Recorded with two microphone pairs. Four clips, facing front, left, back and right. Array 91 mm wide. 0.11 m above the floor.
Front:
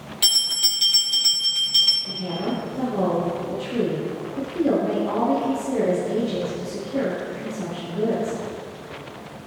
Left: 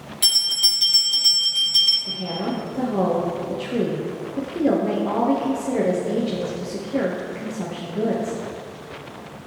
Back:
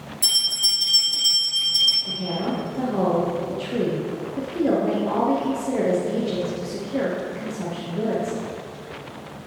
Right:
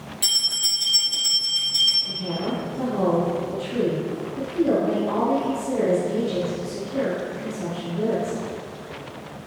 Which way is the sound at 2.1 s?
110° left.